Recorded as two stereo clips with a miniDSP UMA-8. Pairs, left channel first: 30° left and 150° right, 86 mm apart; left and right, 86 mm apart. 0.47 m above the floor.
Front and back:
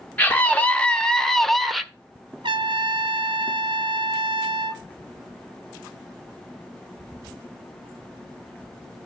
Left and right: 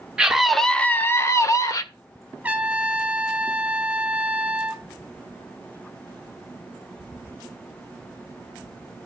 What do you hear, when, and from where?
0.2 s a scream: 20° right, 0.9 m; by 1.8 s 120° left, 1.2 m
2.4 s a trumpet: 160° right, 0.9 m